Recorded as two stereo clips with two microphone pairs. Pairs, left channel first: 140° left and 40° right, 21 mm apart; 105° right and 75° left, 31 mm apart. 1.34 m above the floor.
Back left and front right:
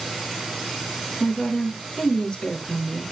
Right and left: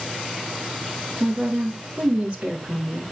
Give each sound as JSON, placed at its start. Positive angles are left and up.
{"t": 1.2, "sound": "a woman speaking", "azimuth_deg": 120, "distance_m": 3.0}